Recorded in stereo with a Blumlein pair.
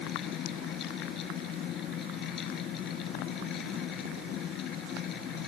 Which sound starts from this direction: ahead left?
A fan, at 0.0 s.